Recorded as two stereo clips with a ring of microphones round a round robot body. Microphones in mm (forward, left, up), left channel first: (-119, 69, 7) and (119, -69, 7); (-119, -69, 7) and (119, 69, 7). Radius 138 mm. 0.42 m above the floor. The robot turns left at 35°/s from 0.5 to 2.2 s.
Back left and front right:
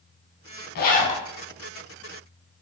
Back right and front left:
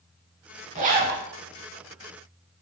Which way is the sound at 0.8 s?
95° left.